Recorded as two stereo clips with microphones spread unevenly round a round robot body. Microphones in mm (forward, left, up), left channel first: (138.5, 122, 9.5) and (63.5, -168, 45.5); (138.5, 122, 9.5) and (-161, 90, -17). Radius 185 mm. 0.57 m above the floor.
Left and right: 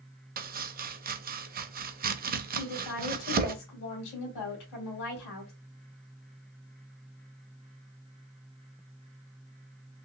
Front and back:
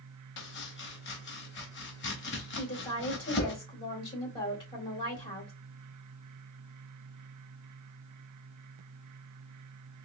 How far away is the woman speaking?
About 2 m.